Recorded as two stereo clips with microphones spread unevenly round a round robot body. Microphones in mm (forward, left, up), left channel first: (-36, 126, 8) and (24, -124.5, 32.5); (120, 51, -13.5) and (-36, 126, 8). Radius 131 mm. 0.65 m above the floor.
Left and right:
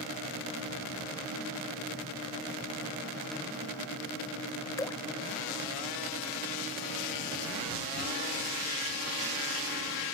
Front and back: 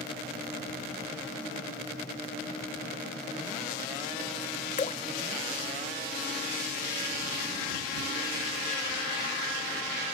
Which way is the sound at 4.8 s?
25° left.